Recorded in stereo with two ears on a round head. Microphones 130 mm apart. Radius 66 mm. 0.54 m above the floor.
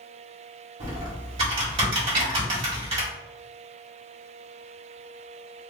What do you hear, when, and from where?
0.8 s typing on a keyboard: 40° right (ahead or behind), 1.8 m
2.1 s a snare drum: 40° right (ahead or behind), 1.4 m